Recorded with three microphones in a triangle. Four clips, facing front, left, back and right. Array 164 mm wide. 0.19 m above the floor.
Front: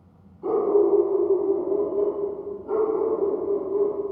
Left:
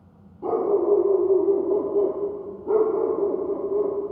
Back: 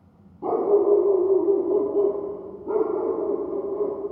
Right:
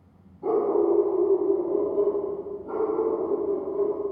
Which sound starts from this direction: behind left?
A dog barking, at 0.4 s.